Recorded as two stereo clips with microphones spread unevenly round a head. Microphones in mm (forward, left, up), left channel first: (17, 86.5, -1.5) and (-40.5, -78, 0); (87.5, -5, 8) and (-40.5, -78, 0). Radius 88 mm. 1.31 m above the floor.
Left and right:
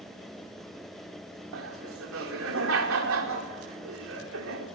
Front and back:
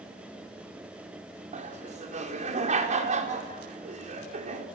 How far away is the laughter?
About 4.5 m.